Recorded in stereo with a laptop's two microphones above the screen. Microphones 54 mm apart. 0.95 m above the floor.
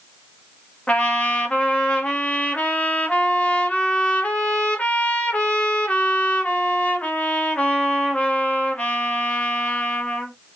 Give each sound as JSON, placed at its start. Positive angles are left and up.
{"t": 0.9, "sound": "a trumpet", "side_deg": 25, "distance_m": 0.7}